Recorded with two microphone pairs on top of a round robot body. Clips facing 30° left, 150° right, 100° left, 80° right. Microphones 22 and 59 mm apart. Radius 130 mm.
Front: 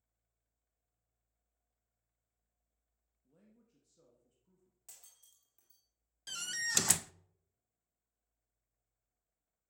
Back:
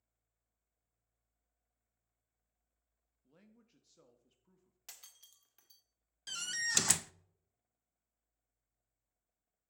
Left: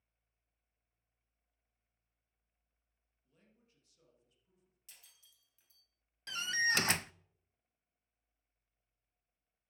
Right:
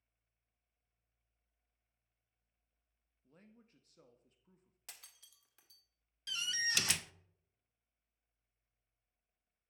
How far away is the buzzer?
No buzzer in this recording.